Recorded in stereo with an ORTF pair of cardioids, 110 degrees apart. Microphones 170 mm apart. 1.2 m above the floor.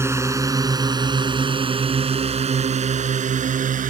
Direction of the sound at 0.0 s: 15° right.